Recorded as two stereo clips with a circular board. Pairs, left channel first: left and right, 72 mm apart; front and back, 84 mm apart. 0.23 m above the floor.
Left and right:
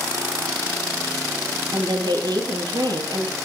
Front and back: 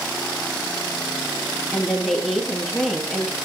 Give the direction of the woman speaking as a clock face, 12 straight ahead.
3 o'clock.